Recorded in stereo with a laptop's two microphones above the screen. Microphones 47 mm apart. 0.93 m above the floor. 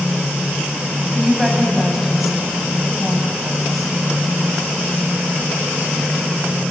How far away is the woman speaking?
About 6.5 m.